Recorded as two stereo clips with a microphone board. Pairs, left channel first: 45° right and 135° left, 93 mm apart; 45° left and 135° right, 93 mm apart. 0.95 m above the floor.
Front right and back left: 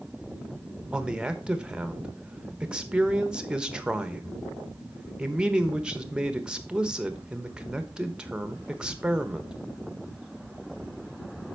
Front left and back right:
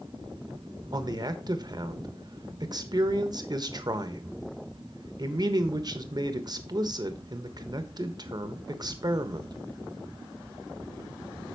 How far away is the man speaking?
About 1.1 m.